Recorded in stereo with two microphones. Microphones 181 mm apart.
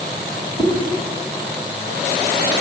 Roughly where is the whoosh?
Centre.